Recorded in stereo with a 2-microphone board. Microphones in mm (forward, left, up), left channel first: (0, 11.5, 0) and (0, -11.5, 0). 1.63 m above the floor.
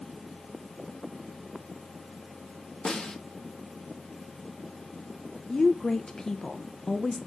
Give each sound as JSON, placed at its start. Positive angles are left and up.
{"t": 2.9, "sound": "a snare drum", "side_deg": 40, "distance_m": 1.2}
{"t": 5.5, "sound": "a woman speaking", "side_deg": 25, "distance_m": 0.5}